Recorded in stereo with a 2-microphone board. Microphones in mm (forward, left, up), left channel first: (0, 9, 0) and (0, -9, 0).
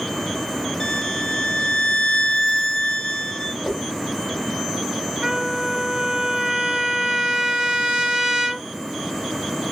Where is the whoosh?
15° right (ahead or behind), 2 m.